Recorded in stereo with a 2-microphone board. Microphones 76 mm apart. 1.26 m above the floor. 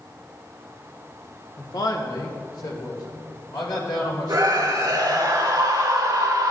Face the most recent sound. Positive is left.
turn(degrees=-60)  # may be behind; listen again after turning